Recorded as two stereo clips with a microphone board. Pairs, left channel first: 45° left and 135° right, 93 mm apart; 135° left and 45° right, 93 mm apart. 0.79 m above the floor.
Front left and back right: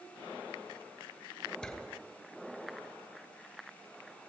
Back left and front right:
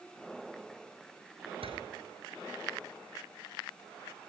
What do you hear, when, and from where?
1.6 s a door slam: 35° right, 9.5 m